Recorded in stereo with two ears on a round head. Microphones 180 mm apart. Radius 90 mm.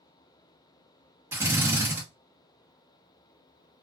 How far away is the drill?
About 1.0 m.